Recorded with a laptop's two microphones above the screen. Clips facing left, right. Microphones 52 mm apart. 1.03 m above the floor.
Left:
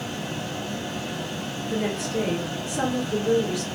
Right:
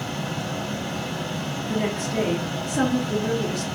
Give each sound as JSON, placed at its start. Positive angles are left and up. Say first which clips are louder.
{"t": 0.0, "sound": "a fan", "louder": "right 2 dB", "side_deg": -60, "distance_m": 1.4}
{"t": 1.7, "sound": "a woman speaking", "louder": "right 1 dB", "side_deg": -40, "distance_m": 0.7}